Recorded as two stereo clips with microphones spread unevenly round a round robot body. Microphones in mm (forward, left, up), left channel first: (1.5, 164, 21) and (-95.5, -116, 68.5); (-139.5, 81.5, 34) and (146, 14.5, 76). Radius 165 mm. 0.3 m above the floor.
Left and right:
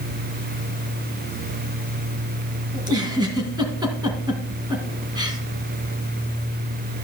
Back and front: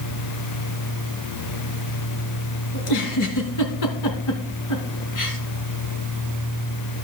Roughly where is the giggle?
Behind.